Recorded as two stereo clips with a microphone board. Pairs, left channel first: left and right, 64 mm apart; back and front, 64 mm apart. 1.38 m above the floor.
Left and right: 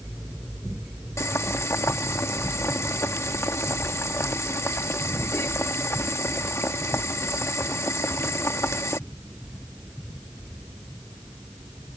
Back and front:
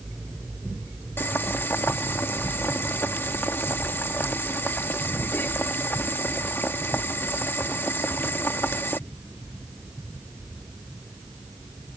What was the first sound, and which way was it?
Boiling, 130° left.